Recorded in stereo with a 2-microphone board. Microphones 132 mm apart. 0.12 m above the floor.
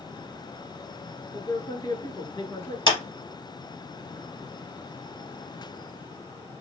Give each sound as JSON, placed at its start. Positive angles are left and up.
{"t": 1.3, "sound": "a man speaking", "side_deg": 30, "distance_m": 1.3}
{"t": 2.9, "sound": "a clap", "side_deg": 30, "distance_m": 2.5}